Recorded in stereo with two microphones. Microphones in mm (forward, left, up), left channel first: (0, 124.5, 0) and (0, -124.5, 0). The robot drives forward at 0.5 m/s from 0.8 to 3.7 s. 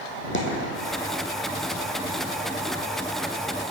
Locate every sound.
0.3 s a dropped coin: 50° left (ahead or behind), 1.8 m